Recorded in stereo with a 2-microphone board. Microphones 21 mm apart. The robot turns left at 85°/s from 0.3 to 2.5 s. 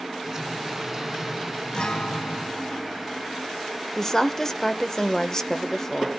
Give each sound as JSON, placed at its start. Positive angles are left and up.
{"t": 1.7, "sound": "a guitar", "azimuth_deg": 145, "distance_m": 1.1}
{"t": 4.0, "sound": "a woman speaking", "side_deg": 20, "distance_m": 0.8}